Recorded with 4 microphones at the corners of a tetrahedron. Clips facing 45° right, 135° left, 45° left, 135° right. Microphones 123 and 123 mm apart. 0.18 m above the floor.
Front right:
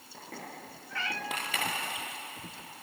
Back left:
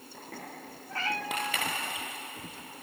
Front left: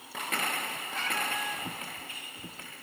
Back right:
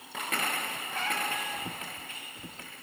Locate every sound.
0.9 s a cat meowing: 175° right, 3 m